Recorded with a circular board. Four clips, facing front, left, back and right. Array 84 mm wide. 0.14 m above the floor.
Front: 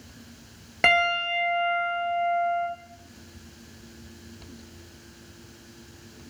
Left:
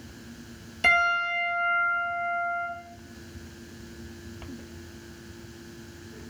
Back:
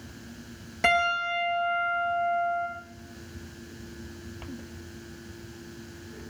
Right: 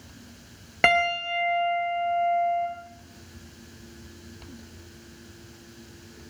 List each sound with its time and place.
0.8 s a piano: 65° right, 8.5 m